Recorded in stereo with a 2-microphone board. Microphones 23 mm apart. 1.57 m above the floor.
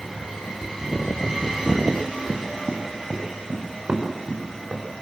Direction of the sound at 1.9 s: 60° right (ahead or behind).